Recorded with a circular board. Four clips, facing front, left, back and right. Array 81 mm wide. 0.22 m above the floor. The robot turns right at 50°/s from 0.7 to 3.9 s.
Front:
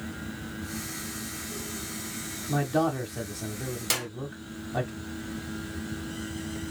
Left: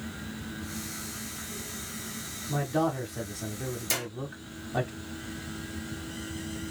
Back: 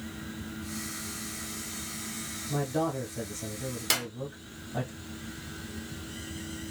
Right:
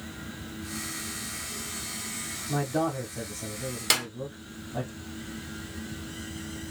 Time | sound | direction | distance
2.5 | a man speaking | 20° right | 1.2 m
3.9 | a clap | 90° right | 1.8 m